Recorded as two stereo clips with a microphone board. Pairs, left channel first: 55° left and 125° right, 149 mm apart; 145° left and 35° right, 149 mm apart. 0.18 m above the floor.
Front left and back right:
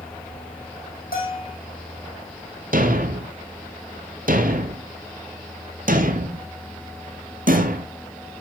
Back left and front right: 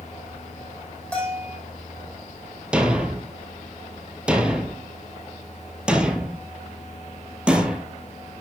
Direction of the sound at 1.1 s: 65° left.